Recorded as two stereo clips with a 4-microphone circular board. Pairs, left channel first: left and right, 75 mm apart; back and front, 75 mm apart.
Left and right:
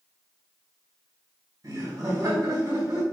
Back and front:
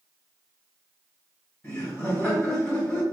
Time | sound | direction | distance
1.6 | laughter | 125° right | 1.7 m